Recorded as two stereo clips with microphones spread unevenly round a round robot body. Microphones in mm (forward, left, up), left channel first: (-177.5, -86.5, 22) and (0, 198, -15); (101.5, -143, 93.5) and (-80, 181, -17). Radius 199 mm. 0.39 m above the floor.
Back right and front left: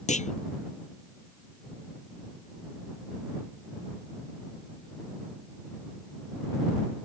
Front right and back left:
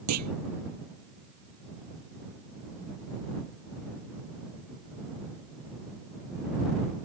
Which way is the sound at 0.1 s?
170° left.